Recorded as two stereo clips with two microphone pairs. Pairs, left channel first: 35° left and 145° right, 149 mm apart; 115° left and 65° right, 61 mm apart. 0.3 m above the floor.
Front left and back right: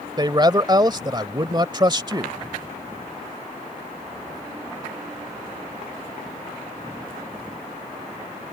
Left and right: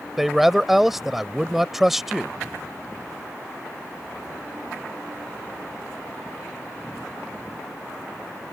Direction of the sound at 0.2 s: 145° right.